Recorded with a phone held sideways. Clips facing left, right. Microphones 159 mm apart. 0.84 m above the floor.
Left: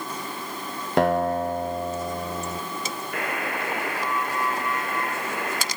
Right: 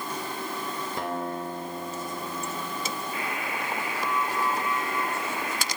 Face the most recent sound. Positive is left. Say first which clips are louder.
# left 3 dB
turn(degrees=65)  # may be behind; listen again after turning